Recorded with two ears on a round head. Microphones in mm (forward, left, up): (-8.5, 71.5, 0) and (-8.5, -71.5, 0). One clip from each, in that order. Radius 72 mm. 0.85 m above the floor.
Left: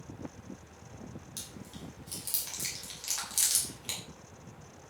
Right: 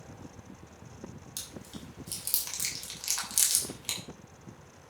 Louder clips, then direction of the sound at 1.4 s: Right 3 dB; 25° right (ahead or behind).